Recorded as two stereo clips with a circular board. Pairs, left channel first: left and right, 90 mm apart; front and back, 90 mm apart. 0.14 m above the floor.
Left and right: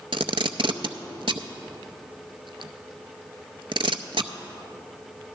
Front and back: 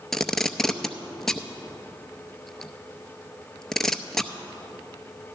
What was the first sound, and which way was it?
Tape being pulled, 85° right.